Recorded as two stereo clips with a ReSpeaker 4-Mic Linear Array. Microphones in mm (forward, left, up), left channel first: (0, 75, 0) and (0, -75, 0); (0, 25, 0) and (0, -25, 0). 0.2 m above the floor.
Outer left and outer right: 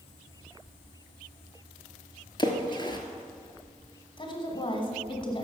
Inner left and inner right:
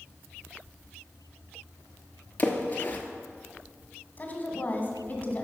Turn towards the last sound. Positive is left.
turn(degrees=35)  # may be behind; listen again after turning